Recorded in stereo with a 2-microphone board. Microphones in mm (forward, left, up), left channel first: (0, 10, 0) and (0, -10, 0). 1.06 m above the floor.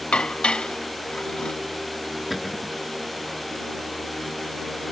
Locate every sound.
0.1 s dishes clattering: 65° left (ahead or behind)
2.3 s a cupboard door: 10° right (ahead or behind)